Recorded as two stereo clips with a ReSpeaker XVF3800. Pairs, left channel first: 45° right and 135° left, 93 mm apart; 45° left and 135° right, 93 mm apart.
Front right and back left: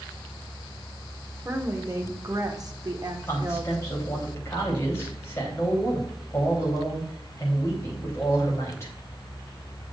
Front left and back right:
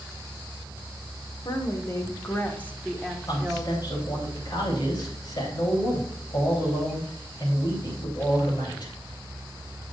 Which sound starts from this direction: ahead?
A man speaking, at 3.3 s.